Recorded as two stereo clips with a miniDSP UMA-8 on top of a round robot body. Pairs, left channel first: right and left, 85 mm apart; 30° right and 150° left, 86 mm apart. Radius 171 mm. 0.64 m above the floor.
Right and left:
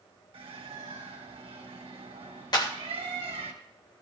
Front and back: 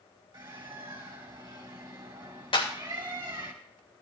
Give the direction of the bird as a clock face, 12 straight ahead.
8 o'clock.